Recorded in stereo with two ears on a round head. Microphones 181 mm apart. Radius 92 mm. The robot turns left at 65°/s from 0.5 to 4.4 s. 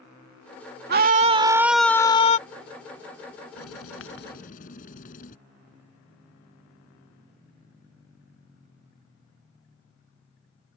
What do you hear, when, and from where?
0.9 s a scream: 125° right; by 2.4 s 140° left
3.6 s writing: 95° left; by 5.4 s 40° left